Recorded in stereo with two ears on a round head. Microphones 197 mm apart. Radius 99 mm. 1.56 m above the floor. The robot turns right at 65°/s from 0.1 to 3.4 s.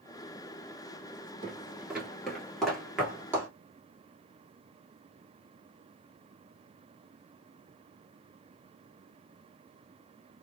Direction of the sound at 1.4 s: 25° right (ahead or behind).